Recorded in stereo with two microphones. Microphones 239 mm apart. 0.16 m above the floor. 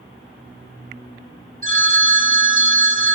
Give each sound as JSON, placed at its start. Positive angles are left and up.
{"t": 1.6, "sound": "a phone ringing", "side_deg": -35, "distance_m": 1.5}